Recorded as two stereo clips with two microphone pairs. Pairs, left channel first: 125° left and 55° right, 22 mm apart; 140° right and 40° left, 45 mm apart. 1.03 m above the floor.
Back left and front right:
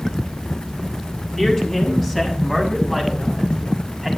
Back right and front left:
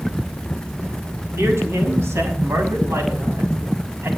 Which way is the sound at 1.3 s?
55° left.